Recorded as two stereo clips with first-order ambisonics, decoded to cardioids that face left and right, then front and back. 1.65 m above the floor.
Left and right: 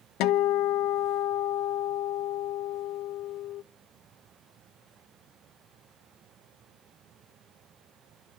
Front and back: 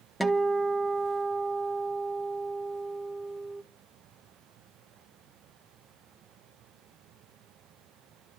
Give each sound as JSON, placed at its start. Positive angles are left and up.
{"t": 0.2, "sound": "a guitar", "azimuth_deg": 90, "distance_m": 0.7}